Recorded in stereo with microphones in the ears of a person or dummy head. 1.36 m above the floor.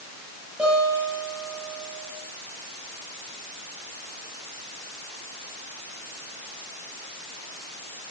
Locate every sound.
0.6 s a guitar: 5° right (ahead or behind), 10 m